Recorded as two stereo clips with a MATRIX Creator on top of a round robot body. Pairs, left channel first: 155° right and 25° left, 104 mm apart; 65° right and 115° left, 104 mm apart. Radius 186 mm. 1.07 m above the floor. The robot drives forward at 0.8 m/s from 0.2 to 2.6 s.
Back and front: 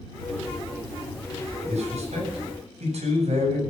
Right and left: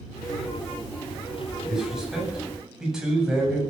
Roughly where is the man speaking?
Ahead left.